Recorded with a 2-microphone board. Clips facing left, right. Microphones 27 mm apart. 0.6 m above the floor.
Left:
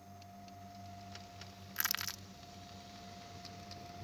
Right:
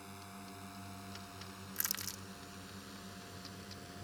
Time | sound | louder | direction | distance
0.0 | a drone | right 3 dB | 70° right (ahead or behind) | ?
1.8 | crushing | left 5 dB | 25° left (ahead or behind) | ?